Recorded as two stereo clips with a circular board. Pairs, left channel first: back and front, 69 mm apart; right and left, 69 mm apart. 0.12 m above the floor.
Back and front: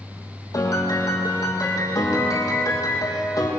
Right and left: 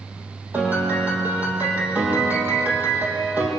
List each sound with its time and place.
0.5 s a piano: 155° left, 6 m